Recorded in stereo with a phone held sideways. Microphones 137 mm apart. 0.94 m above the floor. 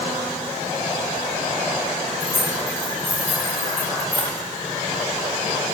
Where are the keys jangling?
20° left (ahead or behind), 2.5 m.